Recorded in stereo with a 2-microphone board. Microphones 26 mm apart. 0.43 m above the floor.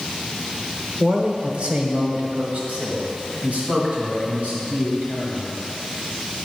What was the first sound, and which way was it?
A man speaking, 35° right (ahead or behind).